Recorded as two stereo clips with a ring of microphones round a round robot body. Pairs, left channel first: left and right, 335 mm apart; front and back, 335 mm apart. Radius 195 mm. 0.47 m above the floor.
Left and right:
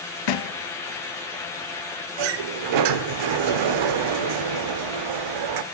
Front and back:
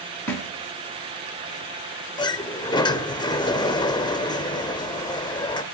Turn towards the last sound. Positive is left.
turn(degrees=-80)